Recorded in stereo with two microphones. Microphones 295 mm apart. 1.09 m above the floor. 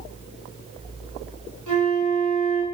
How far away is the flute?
About 7.5 m.